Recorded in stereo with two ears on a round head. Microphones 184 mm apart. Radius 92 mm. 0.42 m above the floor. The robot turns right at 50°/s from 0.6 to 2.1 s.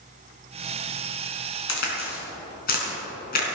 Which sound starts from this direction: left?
A crack, at 1.7 s.